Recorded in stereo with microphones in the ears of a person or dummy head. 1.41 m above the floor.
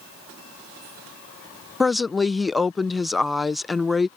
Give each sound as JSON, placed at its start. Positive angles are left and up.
{"t": 1.8, "sound": "a woman speaking", "side_deg": 5}